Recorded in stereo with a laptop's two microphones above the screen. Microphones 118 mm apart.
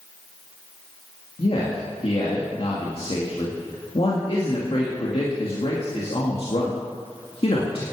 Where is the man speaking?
55° left (ahead or behind), 2.0 m.